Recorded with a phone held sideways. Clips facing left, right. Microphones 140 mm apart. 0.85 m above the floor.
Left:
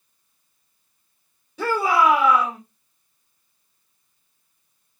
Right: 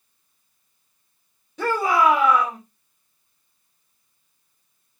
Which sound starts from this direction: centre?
A shout, at 1.6 s.